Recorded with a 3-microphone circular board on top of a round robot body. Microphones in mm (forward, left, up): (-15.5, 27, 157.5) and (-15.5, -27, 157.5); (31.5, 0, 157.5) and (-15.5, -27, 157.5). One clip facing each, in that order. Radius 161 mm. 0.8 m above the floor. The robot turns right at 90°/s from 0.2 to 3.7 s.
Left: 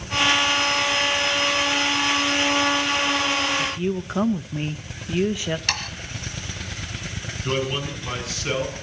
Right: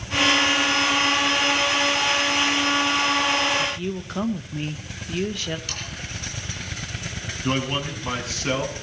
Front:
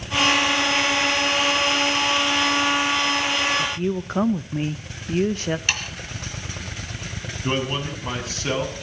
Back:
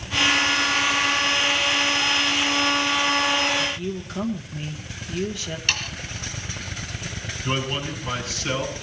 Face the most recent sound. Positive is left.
turn(degrees=-30)